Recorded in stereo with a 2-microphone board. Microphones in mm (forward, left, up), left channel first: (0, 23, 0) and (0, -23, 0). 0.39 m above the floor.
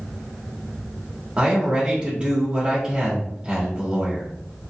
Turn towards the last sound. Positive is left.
turn(degrees=-25)  # may be behind; listen again after turning